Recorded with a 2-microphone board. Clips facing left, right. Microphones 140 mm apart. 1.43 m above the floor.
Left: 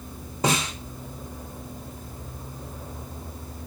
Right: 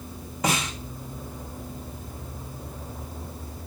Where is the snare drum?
30° left (ahead or behind), 1.3 m.